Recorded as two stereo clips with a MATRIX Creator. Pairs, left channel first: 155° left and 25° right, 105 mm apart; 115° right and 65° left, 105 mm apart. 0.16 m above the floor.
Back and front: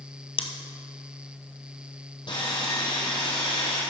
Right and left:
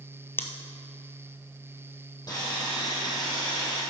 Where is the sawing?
170° right, 4 m.